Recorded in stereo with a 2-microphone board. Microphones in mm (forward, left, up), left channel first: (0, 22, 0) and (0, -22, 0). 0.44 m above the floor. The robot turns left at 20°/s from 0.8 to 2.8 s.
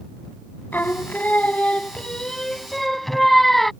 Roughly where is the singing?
Ahead left.